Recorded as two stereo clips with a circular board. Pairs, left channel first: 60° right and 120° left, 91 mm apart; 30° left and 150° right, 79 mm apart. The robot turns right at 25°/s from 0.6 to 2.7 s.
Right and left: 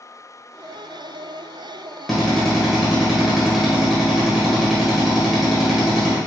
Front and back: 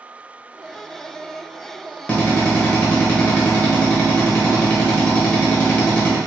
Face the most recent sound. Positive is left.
turn(degrees=40)